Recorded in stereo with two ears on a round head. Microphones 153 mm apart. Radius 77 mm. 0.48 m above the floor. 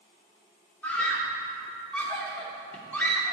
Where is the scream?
10° left (ahead or behind), 0.9 m.